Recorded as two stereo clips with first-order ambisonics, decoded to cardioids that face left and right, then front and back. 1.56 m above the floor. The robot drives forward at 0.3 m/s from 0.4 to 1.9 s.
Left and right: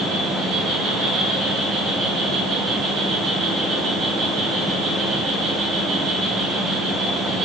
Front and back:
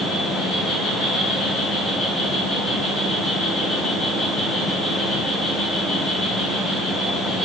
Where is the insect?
60° right, 0.9 m; by 7.5 s 105° right, 0.9 m.